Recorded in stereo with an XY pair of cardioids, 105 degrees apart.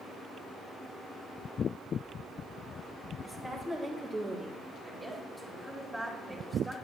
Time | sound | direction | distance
3.2 | a woman speaking | 20° left | 3.5 m
4.8 | a woman speaking | 5° right | 4 m